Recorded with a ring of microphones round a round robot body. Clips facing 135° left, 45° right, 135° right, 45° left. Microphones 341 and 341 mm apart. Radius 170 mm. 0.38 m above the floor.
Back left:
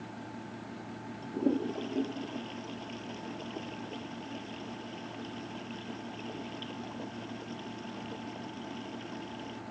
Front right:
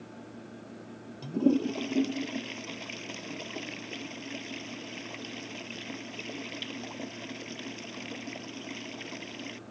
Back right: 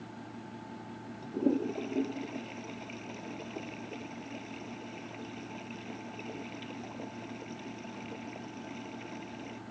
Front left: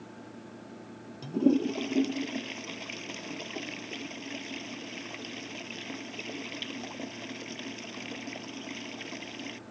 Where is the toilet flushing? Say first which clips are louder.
Front right 5 dB, front left 5 dB; 5° right.